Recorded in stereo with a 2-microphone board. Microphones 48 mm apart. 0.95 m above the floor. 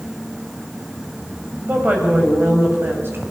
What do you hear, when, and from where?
1.6 s a woman speaking: 35° right (ahead or behind), 5 m; by 3.2 s 50° right (ahead or behind), 6 m